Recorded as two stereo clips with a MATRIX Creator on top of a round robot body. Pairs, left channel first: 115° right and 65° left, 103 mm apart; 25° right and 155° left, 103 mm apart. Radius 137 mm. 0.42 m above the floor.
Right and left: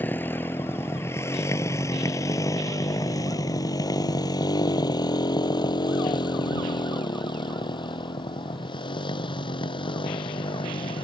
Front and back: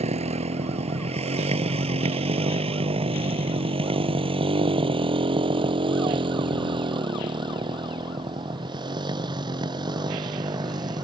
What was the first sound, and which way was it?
A motorcycle, 175° left.